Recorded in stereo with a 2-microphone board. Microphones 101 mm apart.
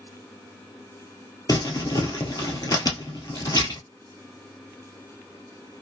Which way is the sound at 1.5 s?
40° left (ahead or behind).